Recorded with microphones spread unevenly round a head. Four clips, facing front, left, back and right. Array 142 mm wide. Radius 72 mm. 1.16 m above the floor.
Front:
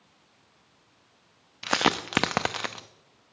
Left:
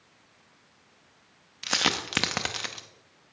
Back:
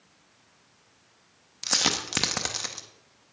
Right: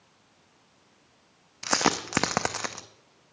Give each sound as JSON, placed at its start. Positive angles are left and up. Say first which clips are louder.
{"t": 1.6, "sound": "a dropped coin", "louder": "right 4 dB, front 6 dB", "azimuth_deg": -45, "distance_m": 0.5}